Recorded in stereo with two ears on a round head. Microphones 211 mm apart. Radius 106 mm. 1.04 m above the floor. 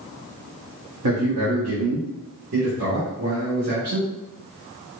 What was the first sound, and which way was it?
A man speaking, 80° right.